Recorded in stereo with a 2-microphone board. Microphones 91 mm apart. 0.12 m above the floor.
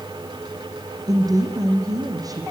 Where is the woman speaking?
45° right (ahead or behind), 5 m.